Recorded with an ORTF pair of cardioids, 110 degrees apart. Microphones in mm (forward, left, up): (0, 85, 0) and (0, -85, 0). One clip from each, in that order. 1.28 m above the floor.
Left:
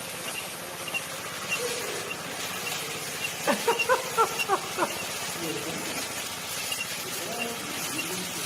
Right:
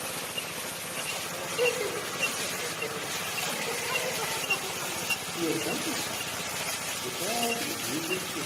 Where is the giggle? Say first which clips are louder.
Left 8 dB; 70° left, 1.1 m.